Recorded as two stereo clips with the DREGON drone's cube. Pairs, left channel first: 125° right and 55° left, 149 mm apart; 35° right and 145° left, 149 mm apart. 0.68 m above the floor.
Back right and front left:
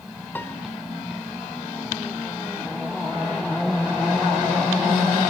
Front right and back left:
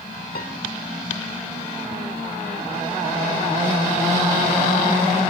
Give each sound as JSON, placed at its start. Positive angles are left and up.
{"t": 0.3, "sound": "a piano", "azimuth_deg": -45, "distance_m": 2.0}